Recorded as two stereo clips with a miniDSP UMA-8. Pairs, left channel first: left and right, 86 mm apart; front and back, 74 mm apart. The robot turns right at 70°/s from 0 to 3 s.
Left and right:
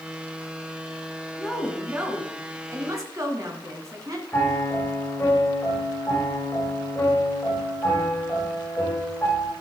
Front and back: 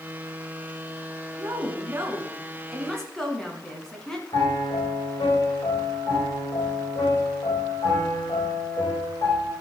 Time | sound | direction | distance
1.4 | a woman speaking | 165° left | 1.7 m
4.3 | a piano | 20° left | 5 m